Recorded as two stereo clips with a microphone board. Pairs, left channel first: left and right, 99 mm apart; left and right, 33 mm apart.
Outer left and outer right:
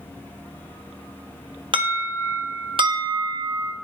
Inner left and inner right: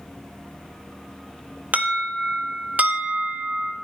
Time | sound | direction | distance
1.7 | an alarm | 60° right (ahead or behind) | 1.5 m